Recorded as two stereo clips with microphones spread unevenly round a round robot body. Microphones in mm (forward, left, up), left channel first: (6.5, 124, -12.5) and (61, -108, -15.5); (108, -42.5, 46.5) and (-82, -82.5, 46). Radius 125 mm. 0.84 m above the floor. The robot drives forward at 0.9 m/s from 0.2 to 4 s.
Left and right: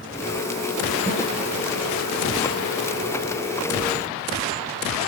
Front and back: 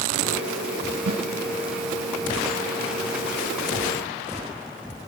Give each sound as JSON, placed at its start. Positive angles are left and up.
{"t": 1.1, "sound": "a snare drum", "azimuth_deg": 170, "distance_m": 4.0}